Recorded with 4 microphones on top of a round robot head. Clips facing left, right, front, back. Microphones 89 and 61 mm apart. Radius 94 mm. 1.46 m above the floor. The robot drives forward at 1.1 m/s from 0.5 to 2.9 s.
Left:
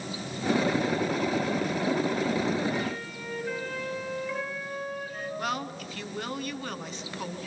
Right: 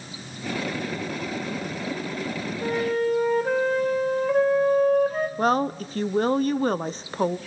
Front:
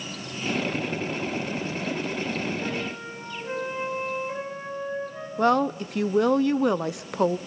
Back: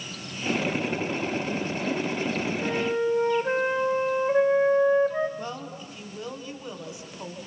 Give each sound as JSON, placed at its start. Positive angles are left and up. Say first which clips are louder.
{"t": 2.6, "sound": "a flute", "louder": "right 7 dB, back 6 dB", "azimuth_deg": -95, "distance_m": 1.1}
{"t": 5.4, "sound": "a woman speaking", "louder": "right 11 dB, front 14 dB", "azimuth_deg": -35, "distance_m": 0.8}